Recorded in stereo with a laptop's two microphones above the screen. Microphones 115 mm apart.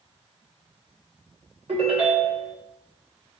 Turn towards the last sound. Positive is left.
turn(degrees=-80)